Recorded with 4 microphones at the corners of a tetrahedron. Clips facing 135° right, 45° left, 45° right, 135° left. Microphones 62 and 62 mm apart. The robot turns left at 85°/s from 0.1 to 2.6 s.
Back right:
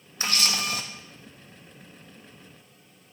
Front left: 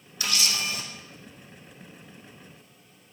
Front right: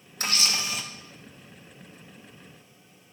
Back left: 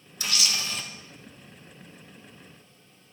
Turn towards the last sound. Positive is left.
turn(degrees=75)